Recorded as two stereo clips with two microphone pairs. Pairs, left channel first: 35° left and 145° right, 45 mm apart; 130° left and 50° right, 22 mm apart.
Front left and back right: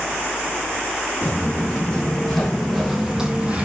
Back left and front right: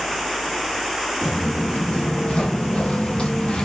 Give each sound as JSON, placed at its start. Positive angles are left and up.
{"t": 1.2, "sound": "footsteps", "azimuth_deg": 100, "distance_m": 1.7}